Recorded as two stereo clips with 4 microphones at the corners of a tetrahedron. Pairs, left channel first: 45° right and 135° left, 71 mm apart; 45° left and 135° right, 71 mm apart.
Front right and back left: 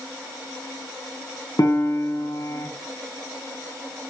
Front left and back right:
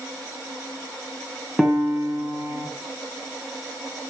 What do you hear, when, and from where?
1.6 s a piano: 45° right, 2.5 m